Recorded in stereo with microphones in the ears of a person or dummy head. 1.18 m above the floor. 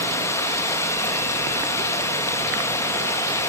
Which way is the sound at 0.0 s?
15° left (ahead or behind).